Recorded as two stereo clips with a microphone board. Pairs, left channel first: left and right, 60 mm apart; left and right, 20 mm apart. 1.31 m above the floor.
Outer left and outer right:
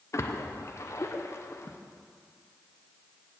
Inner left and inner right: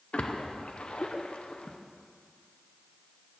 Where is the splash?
55° left (ahead or behind), 0.7 m.